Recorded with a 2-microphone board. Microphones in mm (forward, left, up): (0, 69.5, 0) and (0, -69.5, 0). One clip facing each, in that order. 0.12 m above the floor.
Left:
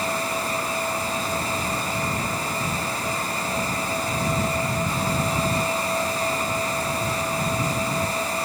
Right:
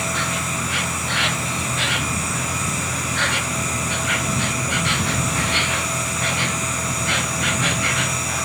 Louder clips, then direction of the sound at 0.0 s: Even; 80° right.